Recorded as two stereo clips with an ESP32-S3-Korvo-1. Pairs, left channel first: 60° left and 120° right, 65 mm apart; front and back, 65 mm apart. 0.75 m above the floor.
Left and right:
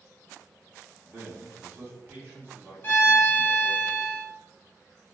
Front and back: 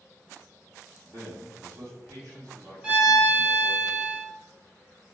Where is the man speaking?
175° right, 1.7 m.